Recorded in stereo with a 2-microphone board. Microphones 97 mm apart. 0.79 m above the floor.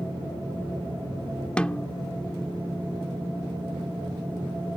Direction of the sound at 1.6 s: 10° left (ahead or behind).